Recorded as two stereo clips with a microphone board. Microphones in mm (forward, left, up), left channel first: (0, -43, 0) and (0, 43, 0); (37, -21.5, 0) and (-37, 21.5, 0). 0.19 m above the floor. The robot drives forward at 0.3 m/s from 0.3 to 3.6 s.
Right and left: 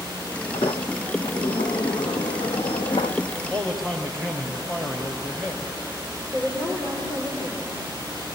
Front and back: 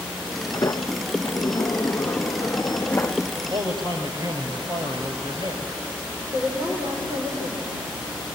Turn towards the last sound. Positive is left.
turn(degrees=-165)